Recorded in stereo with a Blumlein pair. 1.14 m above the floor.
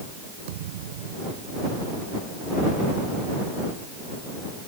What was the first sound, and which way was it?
A thud, 55° right.